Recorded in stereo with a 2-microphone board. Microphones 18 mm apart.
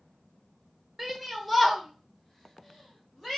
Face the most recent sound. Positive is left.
turn(degrees=25)  # may be behind; listen again after turning